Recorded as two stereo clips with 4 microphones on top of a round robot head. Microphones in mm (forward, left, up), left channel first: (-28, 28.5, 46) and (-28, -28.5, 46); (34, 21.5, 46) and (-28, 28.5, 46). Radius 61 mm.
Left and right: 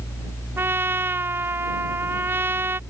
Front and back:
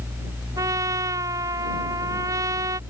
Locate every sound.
0.6 s a trumpet: 140° right